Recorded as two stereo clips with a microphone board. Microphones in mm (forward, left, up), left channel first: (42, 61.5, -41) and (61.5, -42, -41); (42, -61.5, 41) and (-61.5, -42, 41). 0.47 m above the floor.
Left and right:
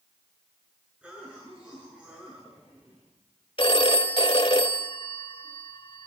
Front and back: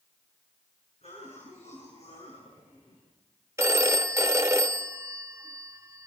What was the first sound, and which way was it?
A cough, straight ahead.